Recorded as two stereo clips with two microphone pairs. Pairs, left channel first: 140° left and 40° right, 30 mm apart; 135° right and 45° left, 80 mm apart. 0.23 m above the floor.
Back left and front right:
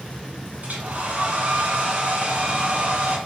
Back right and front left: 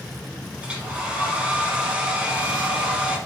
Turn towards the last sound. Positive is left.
turn(degrees=-30)